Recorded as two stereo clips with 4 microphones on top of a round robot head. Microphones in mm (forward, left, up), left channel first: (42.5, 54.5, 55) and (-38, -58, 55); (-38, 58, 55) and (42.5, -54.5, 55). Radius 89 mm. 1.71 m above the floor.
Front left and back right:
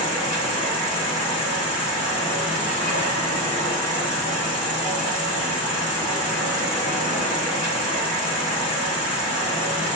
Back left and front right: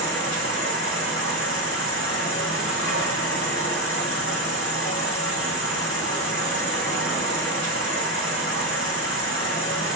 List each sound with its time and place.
0.0 s an insect: 125° left, 1.5 m